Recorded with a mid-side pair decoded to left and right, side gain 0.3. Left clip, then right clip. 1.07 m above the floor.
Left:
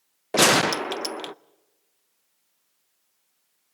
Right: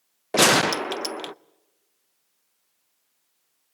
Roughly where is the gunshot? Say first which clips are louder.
Even; ahead.